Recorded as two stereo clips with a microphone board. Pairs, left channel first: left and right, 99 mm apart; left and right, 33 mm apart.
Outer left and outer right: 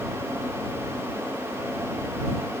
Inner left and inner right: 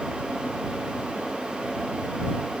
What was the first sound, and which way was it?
Only background noise.